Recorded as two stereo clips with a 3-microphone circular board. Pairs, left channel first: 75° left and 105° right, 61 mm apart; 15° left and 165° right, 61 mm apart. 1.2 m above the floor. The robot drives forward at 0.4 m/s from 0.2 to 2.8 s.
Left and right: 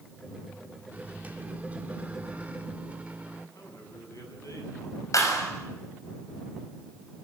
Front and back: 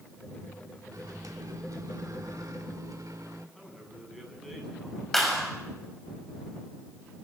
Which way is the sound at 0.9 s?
165° right.